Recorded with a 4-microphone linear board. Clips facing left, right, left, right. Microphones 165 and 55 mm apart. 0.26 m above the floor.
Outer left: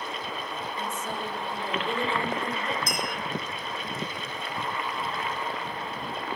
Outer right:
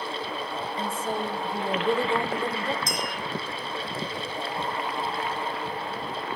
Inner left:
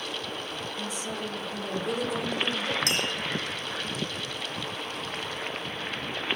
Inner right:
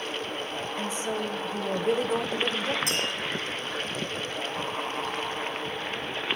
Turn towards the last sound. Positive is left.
turn(degrees=65)  # may be behind; listen again after turning